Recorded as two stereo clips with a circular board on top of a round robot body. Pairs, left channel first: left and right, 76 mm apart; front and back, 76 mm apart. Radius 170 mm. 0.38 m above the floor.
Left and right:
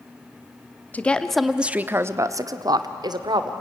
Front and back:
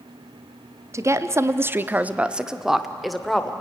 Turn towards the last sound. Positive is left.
turn(degrees=-85)